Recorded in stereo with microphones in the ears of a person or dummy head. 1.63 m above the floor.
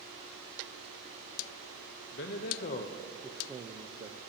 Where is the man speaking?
65° left (ahead or behind), 0.8 m; by 4.2 s 35° right (ahead or behind), 0.7 m.